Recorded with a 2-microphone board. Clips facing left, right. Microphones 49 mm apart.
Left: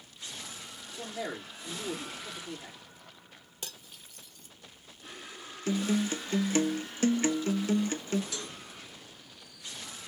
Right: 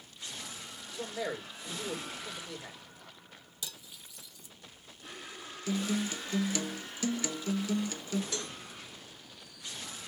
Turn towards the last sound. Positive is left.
turn(degrees=-40)  # may be behind; listen again after turning